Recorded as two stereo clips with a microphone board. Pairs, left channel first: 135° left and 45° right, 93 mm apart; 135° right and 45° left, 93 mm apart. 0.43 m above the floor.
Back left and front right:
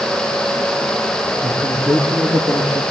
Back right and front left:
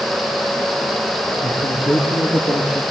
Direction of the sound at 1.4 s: 120° right.